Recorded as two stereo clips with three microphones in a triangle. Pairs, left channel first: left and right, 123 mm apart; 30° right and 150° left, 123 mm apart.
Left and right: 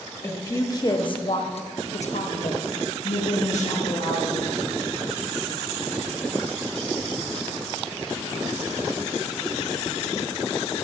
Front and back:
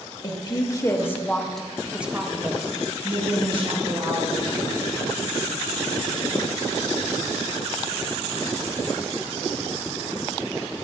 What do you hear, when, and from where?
0.2 s a woman speaking: 20° left, 1.4 m; by 4.5 s 115° left, 2 m